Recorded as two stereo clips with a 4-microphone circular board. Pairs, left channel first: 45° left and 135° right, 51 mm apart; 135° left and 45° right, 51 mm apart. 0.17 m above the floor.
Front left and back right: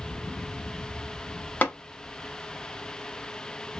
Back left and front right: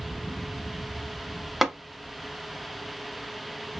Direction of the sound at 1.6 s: 35° left.